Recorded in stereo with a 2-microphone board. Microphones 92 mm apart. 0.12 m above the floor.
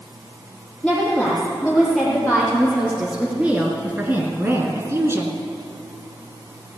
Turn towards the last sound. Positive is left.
turn(degrees=-30)  # may be behind; listen again after turning